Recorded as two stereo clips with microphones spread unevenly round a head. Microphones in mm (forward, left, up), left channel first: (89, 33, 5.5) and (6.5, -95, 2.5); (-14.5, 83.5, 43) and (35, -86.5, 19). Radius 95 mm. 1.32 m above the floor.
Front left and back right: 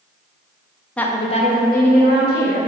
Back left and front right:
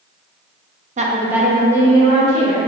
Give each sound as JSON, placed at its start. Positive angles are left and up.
{"t": 1.0, "sound": "a woman speaking", "azimuth_deg": -30, "distance_m": 0.5}